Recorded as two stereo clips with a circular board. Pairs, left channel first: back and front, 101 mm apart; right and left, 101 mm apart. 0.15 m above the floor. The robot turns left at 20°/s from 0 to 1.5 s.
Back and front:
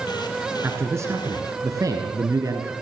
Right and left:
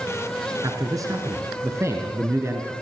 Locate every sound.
0.6 s a man speaking: 55° left, 2.5 m; by 2.7 s 40° left, 2.5 m